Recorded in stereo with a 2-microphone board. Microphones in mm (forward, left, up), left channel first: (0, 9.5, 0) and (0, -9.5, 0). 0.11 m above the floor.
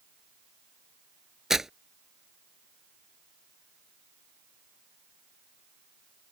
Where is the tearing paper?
25° right (ahead or behind).